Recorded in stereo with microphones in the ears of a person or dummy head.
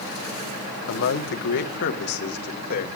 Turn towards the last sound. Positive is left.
turn(degrees=50)  # may be behind; listen again after turning